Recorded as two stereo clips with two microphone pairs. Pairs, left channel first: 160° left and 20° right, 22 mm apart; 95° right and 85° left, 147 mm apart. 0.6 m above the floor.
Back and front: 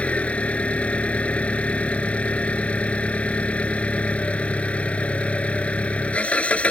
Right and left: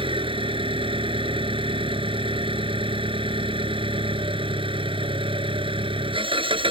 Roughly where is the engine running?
Behind left.